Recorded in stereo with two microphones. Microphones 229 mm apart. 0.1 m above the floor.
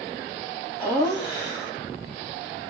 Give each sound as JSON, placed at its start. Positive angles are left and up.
{"t": 0.8, "sound": "laughter", "side_deg": 5, "distance_m": 3.0}